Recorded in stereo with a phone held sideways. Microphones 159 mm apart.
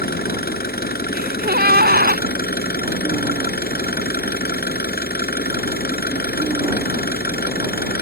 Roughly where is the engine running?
Left.